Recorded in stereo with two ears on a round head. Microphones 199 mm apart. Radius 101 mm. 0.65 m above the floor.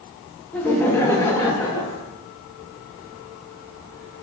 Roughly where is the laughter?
Centre.